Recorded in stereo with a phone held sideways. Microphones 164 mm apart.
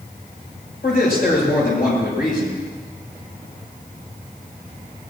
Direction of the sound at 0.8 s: 70° left (ahead or behind).